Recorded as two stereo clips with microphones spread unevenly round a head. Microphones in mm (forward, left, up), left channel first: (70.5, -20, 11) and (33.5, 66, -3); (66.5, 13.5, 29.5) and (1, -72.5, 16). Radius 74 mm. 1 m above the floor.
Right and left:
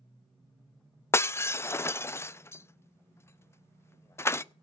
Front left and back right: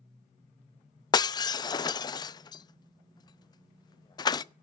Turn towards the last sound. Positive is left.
turn(degrees=0)